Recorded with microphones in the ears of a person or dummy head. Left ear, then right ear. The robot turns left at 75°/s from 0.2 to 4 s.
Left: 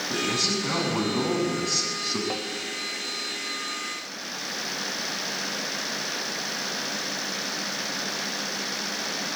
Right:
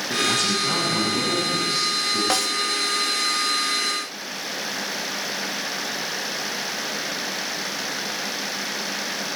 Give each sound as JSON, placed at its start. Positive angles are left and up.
{"t": 0.1, "sound": "a man speaking", "azimuth_deg": -140, "distance_m": 7.0}
{"t": 2.3, "sound": "a snare drum", "side_deg": -65, "distance_m": 1.0}